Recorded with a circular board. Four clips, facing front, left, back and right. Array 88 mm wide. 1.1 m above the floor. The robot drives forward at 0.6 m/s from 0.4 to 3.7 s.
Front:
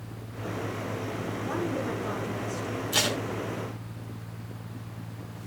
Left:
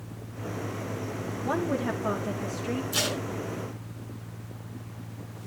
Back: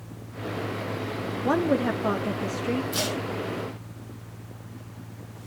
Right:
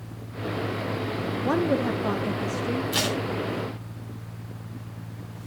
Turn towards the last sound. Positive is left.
turn(degrees=-55)